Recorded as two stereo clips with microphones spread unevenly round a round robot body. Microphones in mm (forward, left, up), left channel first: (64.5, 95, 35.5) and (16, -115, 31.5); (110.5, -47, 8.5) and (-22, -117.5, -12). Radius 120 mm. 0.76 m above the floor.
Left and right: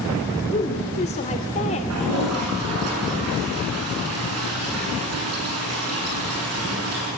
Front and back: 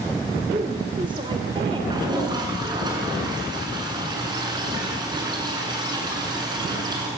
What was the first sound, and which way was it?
A woman speaking, 140° left.